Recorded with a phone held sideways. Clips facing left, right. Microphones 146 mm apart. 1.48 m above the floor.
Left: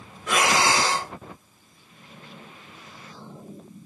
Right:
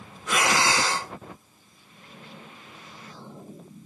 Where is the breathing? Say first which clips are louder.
Left 2 dB; 85° left, 2.0 m.